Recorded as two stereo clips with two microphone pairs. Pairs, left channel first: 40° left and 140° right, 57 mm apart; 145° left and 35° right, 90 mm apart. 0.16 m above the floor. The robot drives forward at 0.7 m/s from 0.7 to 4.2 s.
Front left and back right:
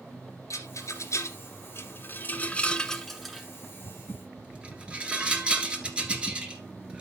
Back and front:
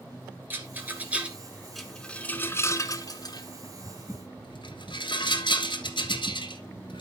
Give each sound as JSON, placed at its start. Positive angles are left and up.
{"t": 0.5, "sound": "a rattle", "azimuth_deg": 30, "distance_m": 1.6}